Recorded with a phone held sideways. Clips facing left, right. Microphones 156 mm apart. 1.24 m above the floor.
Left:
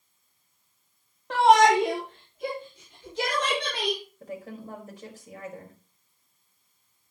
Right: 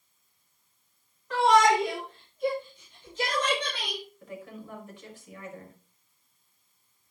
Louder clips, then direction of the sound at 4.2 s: Left 3 dB; 40° left (ahead or behind).